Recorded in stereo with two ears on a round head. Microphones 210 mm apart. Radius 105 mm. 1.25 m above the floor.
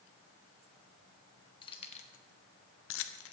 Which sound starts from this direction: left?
Keys jangling, at 1.6 s.